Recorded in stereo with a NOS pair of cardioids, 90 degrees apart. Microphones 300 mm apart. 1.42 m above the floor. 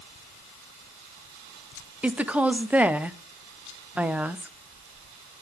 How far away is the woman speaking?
About 0.8 m.